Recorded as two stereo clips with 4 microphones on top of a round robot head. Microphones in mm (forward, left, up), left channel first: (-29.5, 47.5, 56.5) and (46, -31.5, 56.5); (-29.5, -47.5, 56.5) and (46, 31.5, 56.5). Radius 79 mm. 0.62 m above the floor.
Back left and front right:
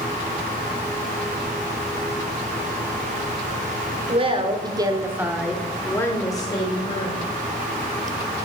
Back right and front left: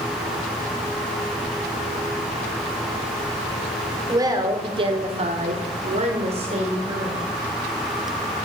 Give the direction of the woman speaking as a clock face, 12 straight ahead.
12 o'clock.